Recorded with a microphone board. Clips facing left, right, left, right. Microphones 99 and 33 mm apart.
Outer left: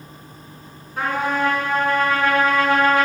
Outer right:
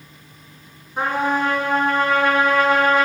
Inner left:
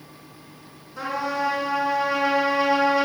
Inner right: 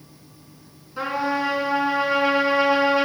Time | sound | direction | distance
1.0 | a trumpet | 20° right (ahead or behind) | 4 m